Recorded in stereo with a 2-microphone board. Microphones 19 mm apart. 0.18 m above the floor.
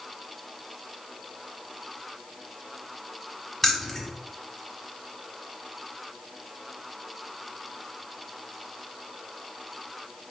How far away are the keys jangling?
About 0.7 m.